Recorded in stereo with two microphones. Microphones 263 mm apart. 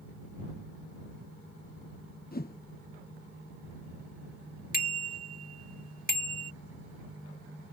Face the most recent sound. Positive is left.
turn(degrees=35)  # may be behind; listen again after turning